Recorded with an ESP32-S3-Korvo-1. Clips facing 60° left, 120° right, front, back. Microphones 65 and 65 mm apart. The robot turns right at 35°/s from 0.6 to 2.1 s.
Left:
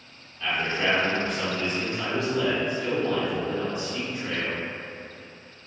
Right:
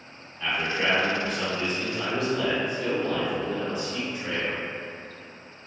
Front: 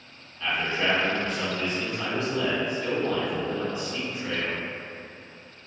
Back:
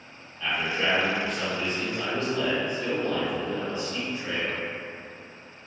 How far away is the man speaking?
About 1.6 m.